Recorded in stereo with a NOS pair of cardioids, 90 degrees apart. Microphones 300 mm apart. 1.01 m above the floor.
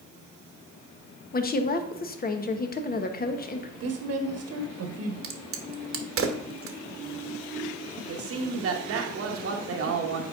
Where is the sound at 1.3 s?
30° left, 0.9 m.